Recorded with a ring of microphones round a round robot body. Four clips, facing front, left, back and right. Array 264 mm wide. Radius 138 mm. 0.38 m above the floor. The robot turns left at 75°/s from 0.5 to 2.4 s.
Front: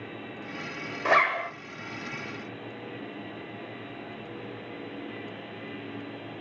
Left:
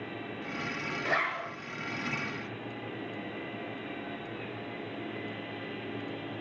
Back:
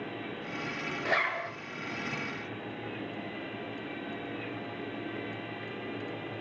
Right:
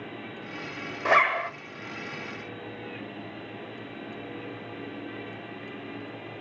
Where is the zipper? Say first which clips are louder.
Right 11 dB, front 8 dB; 45° right, 1.7 m; by 1.5 s 80° right, 1.7 m.